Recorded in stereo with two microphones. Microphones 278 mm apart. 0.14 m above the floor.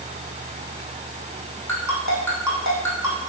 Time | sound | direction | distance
1.7 | a ringtone | 80° left | 2.5 m